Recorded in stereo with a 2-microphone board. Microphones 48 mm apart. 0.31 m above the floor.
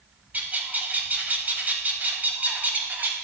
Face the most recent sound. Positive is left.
turn(degrees=-40)  # may be behind; listen again after turning